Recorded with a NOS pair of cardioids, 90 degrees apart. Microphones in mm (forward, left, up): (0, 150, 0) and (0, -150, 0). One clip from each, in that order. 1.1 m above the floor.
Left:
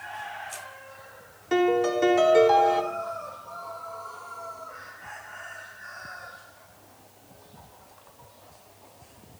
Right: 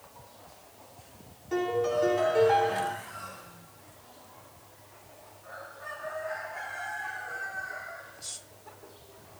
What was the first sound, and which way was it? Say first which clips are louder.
A piano: left 5 dB; 60° left.